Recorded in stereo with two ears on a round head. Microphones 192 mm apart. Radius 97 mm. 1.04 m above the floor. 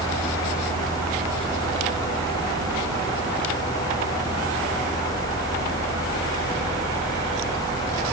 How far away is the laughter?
I don't hear laughter.